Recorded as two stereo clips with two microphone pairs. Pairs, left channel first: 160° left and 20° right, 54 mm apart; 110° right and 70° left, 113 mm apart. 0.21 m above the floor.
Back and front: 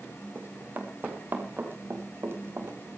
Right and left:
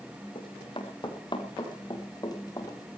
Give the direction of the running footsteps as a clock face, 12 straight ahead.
2 o'clock.